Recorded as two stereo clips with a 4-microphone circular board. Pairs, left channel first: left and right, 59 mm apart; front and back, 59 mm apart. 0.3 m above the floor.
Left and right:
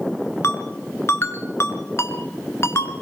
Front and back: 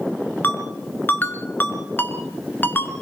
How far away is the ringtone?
About 2 m.